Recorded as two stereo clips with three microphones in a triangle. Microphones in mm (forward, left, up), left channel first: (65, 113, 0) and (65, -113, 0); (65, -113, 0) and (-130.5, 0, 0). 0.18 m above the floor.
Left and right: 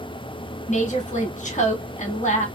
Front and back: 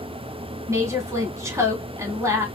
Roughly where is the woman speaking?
Left.